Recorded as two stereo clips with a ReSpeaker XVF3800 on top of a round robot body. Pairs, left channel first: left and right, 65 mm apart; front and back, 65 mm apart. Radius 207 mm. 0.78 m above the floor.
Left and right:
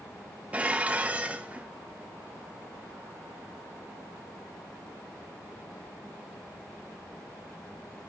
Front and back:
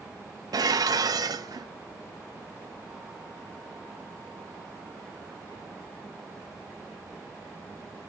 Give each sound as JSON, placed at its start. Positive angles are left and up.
{"t": 0.5, "sound": "dishes clattering", "azimuth_deg": -160, "distance_m": 0.7}